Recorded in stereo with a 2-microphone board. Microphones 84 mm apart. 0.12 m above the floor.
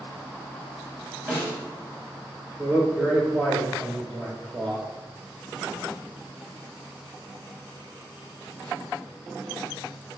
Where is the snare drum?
15° left (ahead or behind), 1.4 m.